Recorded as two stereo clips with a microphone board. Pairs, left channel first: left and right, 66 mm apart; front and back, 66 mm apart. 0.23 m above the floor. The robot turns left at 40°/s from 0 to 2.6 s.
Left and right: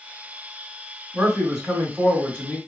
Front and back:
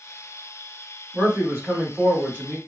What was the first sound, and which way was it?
A man speaking, 160° right.